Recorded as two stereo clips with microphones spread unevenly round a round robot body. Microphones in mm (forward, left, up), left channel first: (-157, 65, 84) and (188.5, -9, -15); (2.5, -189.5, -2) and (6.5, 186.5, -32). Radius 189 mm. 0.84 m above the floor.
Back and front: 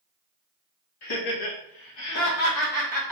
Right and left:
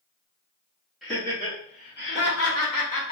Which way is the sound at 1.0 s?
175° left.